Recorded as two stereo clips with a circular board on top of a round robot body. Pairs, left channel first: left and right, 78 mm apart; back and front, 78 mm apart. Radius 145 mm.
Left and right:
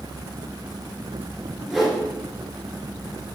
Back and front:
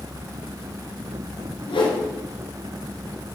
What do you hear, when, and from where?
1.7 s a whoosh: 175° left, 3 m